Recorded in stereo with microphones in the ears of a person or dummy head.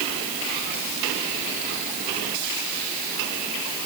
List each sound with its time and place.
Only background noise.